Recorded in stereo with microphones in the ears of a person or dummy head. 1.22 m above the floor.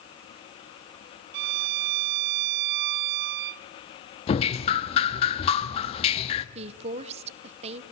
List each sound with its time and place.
1.3 s a violin: 55° right (ahead or behind), 0.5 m
4.3 s dripping: 35° left (ahead or behind), 0.9 m
6.5 s a woman speaking: 35° right (ahead or behind), 1.0 m